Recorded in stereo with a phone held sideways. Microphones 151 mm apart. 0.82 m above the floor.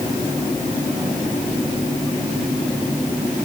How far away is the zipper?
No zipper in this recording.